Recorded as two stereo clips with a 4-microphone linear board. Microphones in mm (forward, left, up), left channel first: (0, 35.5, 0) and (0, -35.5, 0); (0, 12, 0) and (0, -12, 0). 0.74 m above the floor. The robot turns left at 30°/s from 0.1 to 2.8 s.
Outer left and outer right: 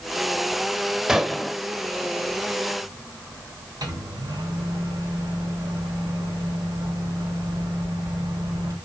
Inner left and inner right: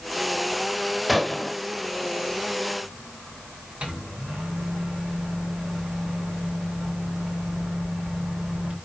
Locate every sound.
1.1 s a gunshot: 10° right (ahead or behind), 0.8 m; by 1.6 s 5° left (ahead or behind), 0.8 m
3.8 s a microwave: 60° right (ahead or behind), 2.5 m